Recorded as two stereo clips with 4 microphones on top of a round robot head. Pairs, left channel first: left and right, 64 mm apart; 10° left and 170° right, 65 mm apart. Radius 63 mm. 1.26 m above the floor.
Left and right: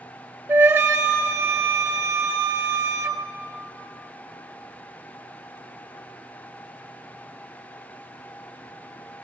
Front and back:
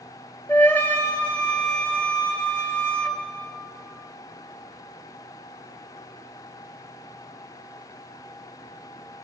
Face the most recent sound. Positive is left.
turn(degrees=-55)